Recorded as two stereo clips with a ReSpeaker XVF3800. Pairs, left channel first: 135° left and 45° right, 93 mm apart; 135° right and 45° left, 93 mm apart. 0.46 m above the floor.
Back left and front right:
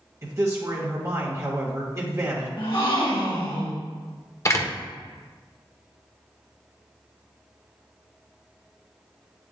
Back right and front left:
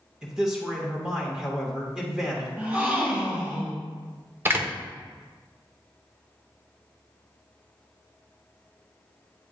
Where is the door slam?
95° left, 0.8 m.